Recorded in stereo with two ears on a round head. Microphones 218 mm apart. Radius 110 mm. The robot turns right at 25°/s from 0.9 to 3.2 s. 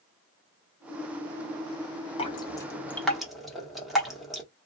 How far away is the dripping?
About 1.0 m.